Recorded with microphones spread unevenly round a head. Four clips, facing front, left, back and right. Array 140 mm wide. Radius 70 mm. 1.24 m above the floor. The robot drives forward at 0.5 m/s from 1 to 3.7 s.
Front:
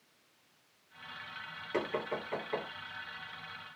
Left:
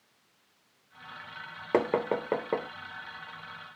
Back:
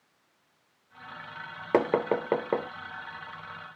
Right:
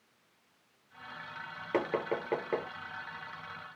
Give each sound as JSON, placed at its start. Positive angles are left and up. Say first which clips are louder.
{"t": 1.7, "sound": "knocking", "louder": "left 5 dB, back 11 dB", "azimuth_deg": 155, "distance_m": 0.6}